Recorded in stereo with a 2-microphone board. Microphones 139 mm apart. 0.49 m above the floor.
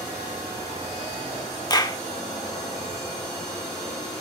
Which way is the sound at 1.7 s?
30° left (ahead or behind).